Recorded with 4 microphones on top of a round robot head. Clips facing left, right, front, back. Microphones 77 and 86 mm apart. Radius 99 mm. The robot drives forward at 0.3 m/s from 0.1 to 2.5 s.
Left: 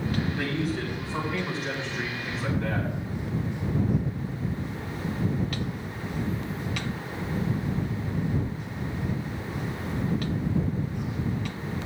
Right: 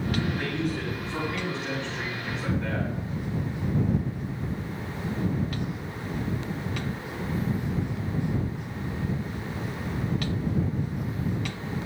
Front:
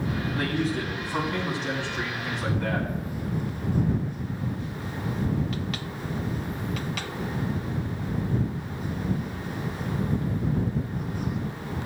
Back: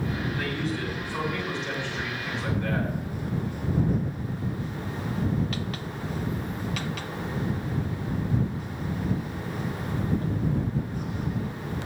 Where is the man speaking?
5° left, 8 m.